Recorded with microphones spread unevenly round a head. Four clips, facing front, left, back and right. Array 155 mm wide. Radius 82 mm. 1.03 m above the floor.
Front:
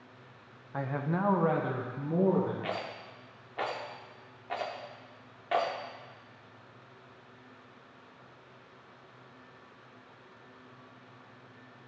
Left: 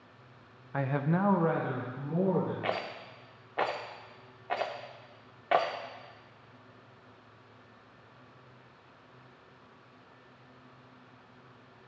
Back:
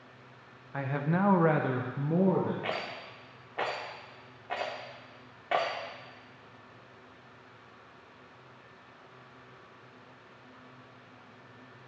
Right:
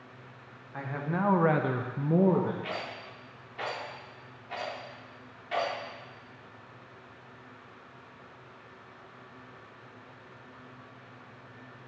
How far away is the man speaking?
About 0.8 m.